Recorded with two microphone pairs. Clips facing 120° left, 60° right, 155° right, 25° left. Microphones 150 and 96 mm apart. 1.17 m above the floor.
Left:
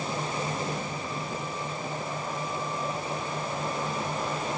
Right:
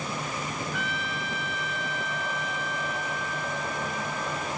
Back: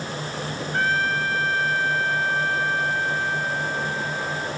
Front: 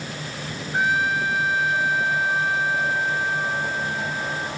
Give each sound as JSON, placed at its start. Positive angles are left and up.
{"t": 0.7, "sound": "a trumpet", "azimuth_deg": -55}